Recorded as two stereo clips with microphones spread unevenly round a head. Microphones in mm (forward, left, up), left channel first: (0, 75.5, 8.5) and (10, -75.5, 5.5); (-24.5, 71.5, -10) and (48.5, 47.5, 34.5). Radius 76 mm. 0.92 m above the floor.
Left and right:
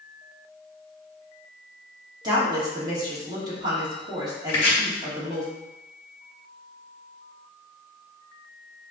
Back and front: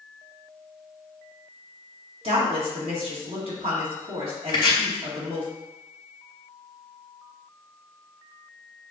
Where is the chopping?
150° left, 1.7 m.